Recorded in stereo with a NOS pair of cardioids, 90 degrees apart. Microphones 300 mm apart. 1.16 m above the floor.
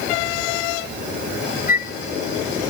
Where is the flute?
30° left, 0.9 m.